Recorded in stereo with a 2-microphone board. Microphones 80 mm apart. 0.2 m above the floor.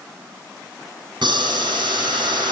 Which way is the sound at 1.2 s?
80° right.